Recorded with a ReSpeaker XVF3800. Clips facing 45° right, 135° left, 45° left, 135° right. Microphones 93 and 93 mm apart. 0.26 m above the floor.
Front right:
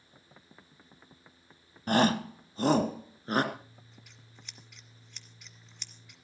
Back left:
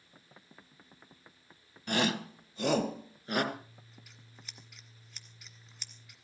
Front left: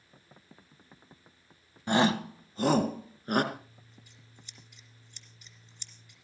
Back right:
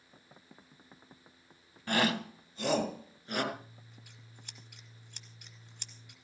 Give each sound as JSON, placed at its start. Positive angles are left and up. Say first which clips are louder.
{"t": 1.9, "sound": "a shout", "louder": "front right 6 dB, front left 5 dB", "azimuth_deg": -15, "distance_m": 1.2}
{"t": 3.5, "sound": "scissors", "louder": "back left 1 dB, even", "azimuth_deg": -140, "distance_m": 1.9}